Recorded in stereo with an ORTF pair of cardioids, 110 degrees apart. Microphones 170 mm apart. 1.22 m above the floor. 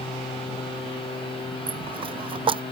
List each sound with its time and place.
0.0 s a machine running: 30° left
1.7 s a dropped coin: 30° right